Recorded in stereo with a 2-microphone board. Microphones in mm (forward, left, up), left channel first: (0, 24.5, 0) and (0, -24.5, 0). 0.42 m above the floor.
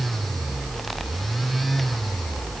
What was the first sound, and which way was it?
Only background noise.